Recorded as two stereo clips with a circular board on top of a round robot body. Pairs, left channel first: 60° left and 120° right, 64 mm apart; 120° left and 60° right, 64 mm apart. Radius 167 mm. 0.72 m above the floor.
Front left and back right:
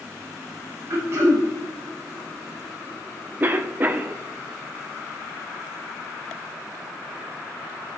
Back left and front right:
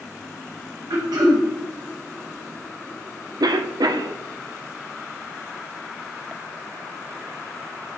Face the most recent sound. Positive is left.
turn(degrees=-60)